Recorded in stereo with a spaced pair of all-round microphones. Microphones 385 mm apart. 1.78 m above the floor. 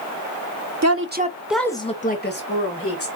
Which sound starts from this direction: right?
A woman speaking, at 0.8 s.